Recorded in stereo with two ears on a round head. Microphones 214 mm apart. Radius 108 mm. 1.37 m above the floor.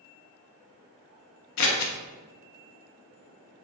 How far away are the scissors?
About 0.6 m.